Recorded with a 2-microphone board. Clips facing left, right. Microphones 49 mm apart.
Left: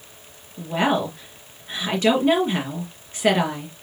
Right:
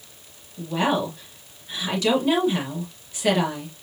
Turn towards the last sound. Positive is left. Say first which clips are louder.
# left 2 dB
turn(degrees=35)  # may be behind; listen again after turning